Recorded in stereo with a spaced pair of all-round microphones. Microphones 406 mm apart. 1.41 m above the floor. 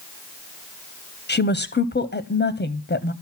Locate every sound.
1.3 s a woman speaking: 25° left (ahead or behind), 0.6 m